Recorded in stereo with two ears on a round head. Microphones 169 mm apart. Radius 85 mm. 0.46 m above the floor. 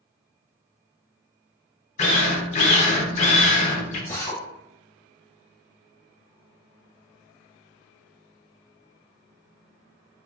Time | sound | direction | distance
2.0 | a drill | 40° left (ahead or behind) | 0.6 m
4.1 | a drill | 15° left (ahead or behind) | 0.9 m